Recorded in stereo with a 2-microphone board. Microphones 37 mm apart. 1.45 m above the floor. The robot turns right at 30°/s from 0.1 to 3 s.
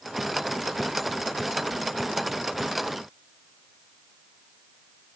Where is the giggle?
I don't hear a giggle.